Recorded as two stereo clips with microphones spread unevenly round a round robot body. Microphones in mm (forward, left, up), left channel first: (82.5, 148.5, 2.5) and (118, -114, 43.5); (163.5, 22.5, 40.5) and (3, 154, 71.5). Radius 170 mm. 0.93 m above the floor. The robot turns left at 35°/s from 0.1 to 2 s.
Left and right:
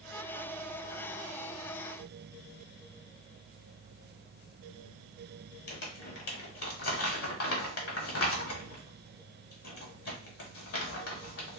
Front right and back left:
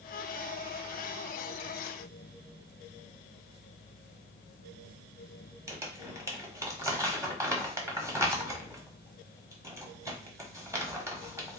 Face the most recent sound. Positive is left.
turn(degrees=65)